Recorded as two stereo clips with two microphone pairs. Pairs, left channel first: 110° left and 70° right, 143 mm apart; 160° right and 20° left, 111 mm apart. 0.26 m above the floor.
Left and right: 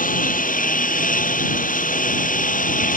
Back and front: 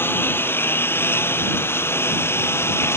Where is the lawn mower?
130° left.